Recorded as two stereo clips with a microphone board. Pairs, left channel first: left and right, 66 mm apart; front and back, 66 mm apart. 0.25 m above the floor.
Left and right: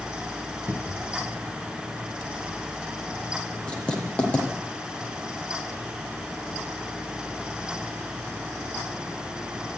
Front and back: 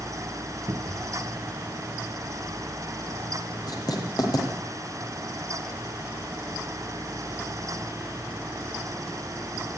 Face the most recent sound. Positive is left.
turn(degrees=20)